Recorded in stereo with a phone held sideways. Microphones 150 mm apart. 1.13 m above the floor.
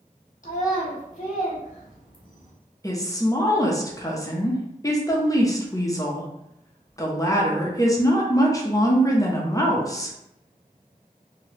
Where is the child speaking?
55° left (ahead or behind), 1.0 m.